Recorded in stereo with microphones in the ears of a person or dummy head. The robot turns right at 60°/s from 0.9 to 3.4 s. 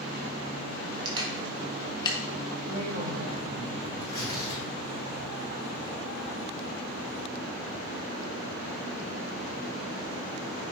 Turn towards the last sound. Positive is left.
turn(degrees=55)  # may be behind; listen again after turning